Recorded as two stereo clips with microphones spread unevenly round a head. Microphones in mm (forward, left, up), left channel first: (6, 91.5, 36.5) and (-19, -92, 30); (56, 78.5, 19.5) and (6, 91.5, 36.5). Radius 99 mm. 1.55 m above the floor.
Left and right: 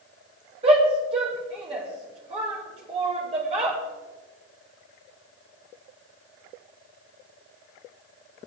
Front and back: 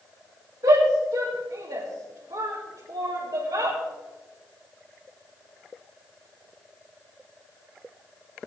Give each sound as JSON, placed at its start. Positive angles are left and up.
{"t": 0.6, "sound": "a shout", "azimuth_deg": -160, "distance_m": 2.0}